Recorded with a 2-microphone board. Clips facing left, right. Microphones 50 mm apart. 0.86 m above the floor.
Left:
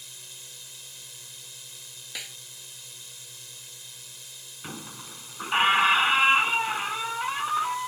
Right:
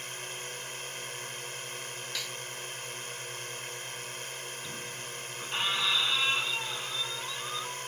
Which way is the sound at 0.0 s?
50° right (ahead or behind).